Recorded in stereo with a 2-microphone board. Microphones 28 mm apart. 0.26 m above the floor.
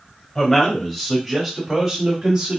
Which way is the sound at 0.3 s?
15° left (ahead or behind).